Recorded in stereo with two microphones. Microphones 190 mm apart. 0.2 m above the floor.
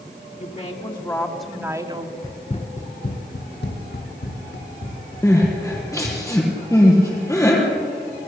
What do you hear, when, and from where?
0.4 s a woman speaking: 40° left (ahead or behind), 2 m; by 2.1 s 30° right (ahead or behind), 1.8 m
2.2 s running footsteps: 20° left (ahead or behind), 1.1 m; by 6.2 s 80° left, 4 m
5.2 s crying: 15° left (ahead or behind), 4 m